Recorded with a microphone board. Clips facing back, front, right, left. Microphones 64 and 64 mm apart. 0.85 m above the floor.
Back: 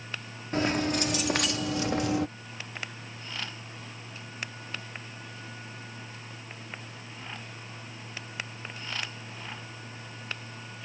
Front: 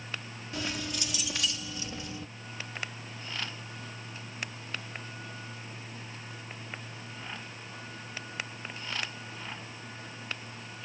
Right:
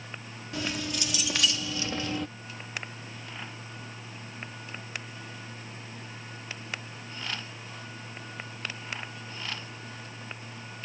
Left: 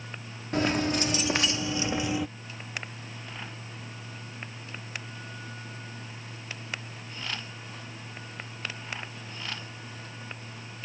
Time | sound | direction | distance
0.5 | keys jangling | 135° left | ?